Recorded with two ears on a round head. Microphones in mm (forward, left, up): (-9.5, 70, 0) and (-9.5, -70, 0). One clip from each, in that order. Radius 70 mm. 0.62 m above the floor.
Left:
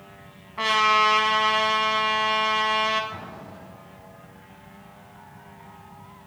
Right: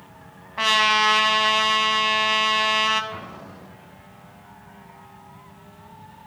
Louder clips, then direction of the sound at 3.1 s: Right 1 dB; 10° right (ahead or behind).